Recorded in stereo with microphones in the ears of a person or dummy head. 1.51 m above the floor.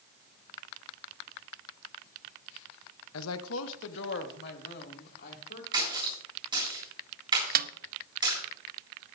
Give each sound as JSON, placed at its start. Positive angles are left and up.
{"t": 3.1, "sound": "a woman speaking", "side_deg": 80, "distance_m": 0.8}
{"t": 5.7, "sound": "a splash", "side_deg": -25, "distance_m": 8.5}
{"t": 7.5, "sound": "a snare drum", "side_deg": -45, "distance_m": 0.6}